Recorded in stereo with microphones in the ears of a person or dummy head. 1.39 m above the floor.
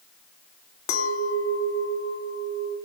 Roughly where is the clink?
Left.